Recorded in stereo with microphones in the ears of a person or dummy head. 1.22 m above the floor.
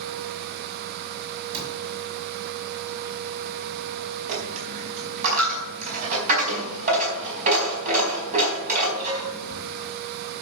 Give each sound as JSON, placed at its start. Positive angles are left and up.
{"t": 1.5, "sound": "a cupboard door", "side_deg": -35, "distance_m": 3.5}
{"t": 4.3, "sound": "a dropped coin", "side_deg": -45, "distance_m": 4.5}